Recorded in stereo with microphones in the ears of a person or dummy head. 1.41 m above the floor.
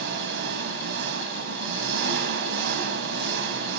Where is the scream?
No scream in this recording.